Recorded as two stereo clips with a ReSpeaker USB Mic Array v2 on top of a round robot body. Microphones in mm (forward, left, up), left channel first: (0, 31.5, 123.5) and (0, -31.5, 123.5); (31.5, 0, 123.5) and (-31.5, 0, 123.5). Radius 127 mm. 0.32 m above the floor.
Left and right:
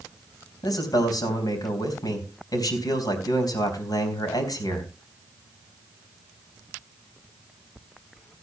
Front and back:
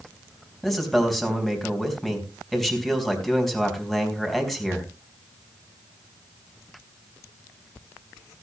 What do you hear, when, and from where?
0.6 s a man speaking: 85° left, 4.5 m